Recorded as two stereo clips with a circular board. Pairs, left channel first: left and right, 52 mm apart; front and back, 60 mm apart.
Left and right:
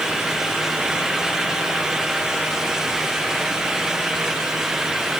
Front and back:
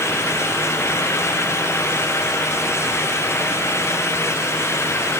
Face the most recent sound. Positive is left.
No sound to turn to.